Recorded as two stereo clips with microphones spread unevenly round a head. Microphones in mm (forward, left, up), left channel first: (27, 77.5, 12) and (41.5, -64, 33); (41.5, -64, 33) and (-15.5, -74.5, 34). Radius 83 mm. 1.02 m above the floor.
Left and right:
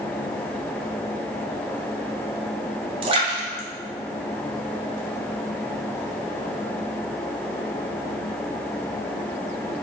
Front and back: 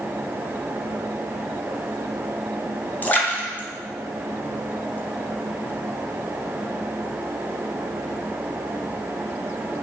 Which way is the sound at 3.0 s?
45° right.